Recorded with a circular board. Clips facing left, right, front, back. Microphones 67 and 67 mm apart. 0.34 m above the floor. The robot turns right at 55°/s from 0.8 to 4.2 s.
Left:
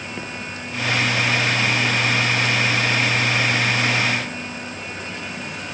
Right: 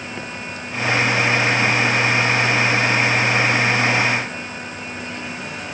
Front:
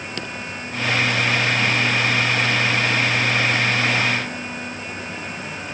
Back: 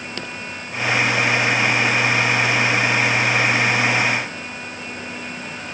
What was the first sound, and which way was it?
Only background noise.